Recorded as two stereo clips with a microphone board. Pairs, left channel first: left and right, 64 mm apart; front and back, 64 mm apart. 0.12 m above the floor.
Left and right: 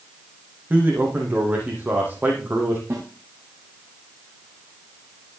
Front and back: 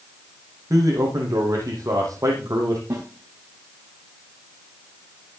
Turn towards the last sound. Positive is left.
turn(degrees=-140)